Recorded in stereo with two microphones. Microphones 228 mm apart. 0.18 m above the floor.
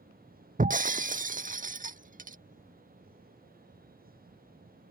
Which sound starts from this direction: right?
Breaking glass, at 0.6 s.